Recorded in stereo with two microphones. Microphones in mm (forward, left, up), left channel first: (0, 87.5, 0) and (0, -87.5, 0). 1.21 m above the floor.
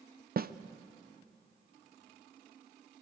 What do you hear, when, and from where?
0.4 s a snare drum: 55° right (ahead or behind), 0.5 m